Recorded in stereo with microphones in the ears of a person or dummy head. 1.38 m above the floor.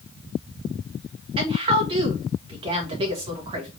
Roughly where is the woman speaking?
Right.